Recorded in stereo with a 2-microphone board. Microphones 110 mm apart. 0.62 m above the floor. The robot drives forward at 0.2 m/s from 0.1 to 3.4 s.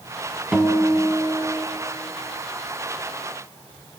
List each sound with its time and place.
0.5 s a guitar: 5° right (ahead or behind), 0.9 m